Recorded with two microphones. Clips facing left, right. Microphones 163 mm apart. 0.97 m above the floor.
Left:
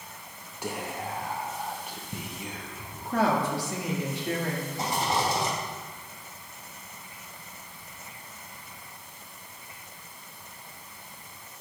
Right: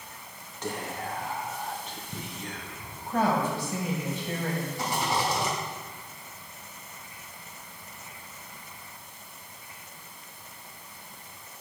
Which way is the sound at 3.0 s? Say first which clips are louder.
Even; 75° left (ahead or behind).